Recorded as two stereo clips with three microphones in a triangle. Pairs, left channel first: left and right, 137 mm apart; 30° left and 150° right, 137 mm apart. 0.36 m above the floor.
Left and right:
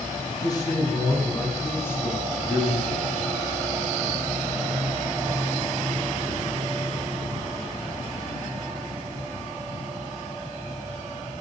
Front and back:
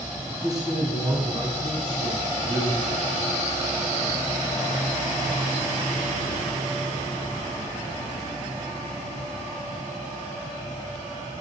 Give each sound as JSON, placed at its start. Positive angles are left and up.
{"t": 0.3, "sound": "a man speaking", "azimuth_deg": 150, "distance_m": 3.5}